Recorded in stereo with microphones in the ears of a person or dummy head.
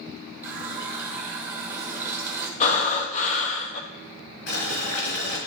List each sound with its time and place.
0.4 s a running tap: 10° right (ahead or behind), 1.2 m
2.6 s breathing: 45° left (ahead or behind), 1.0 m
4.5 s boiling: 65° left (ahead or behind), 4 m